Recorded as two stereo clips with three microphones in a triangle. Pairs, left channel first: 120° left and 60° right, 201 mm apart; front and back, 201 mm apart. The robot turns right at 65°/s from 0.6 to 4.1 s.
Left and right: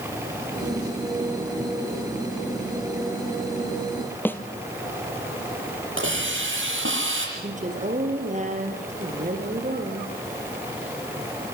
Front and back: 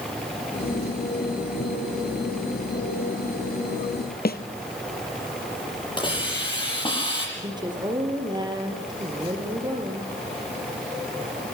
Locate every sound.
4.2 s a snare drum: 40° left, 1.6 m
6.0 s a hiss: 65° right, 8 m
7.4 s a woman speaking: 110° right, 4.5 m